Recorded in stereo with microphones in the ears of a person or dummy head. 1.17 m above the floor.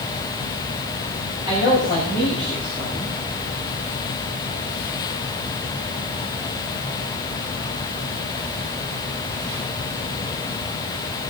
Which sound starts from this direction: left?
A man speaking, at 1.5 s.